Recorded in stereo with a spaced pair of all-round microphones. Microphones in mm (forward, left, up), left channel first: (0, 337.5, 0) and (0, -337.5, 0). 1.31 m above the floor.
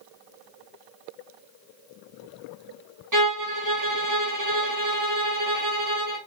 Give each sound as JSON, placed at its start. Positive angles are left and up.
{"t": 3.1, "sound": "a violin", "side_deg": -30, "distance_m": 1.1}